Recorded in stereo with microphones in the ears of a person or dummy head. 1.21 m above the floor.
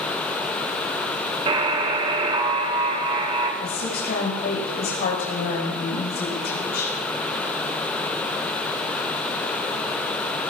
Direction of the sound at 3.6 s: 50° left (ahead or behind).